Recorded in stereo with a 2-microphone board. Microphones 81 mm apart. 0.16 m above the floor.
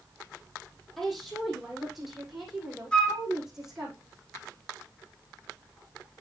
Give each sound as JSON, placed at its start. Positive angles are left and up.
{"t": 1.0, "sound": "a woman speaking", "side_deg": 0, "distance_m": 5.0}
{"t": 2.9, "sound": "a flute", "side_deg": 15, "distance_m": 2.0}